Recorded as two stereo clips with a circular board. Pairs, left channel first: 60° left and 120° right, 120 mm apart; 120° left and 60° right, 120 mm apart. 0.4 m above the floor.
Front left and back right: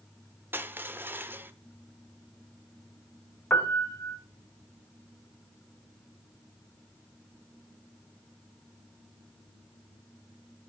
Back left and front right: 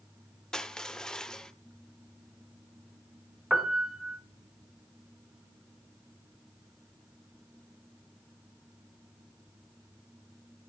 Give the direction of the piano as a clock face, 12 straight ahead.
12 o'clock.